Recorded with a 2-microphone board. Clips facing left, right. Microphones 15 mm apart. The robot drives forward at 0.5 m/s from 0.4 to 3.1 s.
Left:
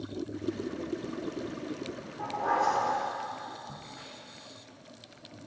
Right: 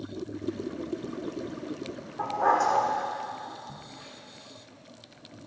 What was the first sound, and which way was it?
A dog barking, 55° right (ahead or behind).